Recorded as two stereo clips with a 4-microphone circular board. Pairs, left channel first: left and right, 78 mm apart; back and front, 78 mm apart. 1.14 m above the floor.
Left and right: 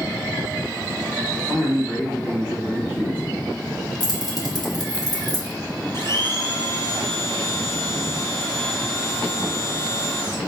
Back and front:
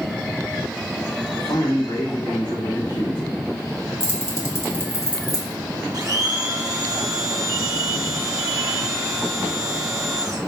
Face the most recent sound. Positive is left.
turn(degrees=40)